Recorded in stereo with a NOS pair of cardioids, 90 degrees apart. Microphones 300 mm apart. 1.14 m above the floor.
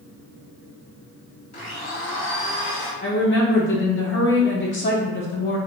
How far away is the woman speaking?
About 1.3 m.